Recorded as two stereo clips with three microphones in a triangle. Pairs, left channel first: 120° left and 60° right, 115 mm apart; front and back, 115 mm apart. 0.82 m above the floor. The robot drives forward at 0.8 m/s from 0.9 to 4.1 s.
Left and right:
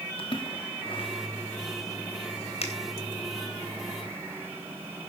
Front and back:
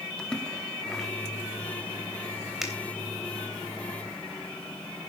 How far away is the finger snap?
About 3 m.